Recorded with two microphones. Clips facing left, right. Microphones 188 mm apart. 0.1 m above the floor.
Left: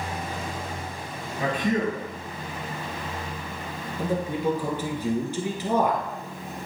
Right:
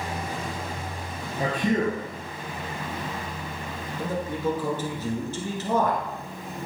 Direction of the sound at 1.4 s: 40° right (ahead or behind).